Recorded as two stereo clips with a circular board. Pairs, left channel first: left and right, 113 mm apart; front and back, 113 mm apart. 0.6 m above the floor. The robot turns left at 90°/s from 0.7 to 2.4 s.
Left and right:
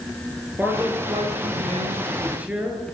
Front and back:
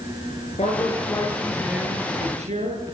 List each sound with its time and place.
0.6 s a man speaking: 15° right, 10 m; by 2.9 s 165° right, 10 m